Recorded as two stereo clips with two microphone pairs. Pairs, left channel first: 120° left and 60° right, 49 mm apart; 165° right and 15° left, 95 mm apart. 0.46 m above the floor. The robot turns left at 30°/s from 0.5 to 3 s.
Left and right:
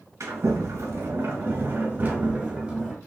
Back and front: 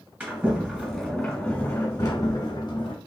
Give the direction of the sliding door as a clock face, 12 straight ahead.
2 o'clock.